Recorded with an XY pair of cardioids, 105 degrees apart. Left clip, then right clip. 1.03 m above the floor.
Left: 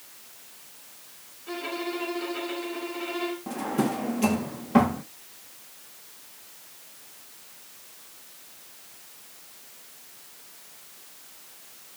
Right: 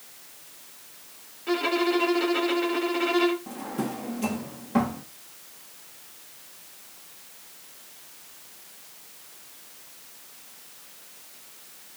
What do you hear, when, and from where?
1.5 s a violin: 55° right, 2 m
3.5 s a drawer: 40° left, 0.8 m